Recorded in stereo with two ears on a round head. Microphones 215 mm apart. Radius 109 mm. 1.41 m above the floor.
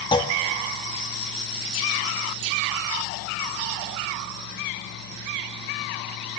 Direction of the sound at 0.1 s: 20° left (ahead or behind).